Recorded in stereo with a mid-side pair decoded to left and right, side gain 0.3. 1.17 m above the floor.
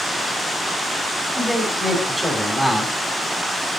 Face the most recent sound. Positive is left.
turn(degrees=-15)